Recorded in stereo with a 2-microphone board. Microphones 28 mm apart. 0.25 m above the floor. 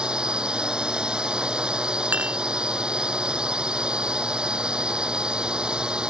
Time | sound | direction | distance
0.0 | a drone | 30° right (ahead or behind) | ?
2.1 | dishes clattering | 75° right (ahead or behind) | ?